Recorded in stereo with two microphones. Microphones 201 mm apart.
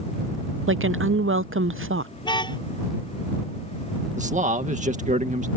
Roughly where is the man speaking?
Right.